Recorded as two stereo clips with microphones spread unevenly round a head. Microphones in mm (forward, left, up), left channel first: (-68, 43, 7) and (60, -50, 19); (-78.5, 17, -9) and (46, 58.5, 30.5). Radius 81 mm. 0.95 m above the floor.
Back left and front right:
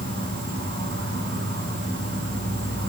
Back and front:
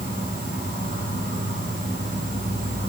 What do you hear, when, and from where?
0.0 s an insect: 20° right, 3 m